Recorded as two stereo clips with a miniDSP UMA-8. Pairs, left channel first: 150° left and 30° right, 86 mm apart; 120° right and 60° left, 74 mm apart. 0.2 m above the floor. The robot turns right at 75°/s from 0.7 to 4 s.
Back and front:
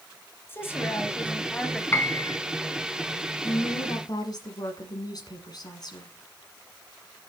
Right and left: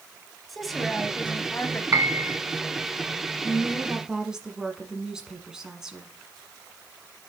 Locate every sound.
0.5 s a woman speaking: 150° left, 1.2 m; by 1.8 s 125° right, 1.2 m
1.9 s a piano: 95° left, 0.8 m; by 2.4 s 130° left, 0.8 m
3.4 s a woman speaking: 100° left, 1.6 m; by 6.1 s 140° left, 1.6 m